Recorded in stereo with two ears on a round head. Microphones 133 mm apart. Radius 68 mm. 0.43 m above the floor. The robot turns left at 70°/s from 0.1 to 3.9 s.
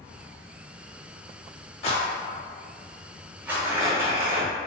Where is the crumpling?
20° right (ahead or behind), 1.3 m.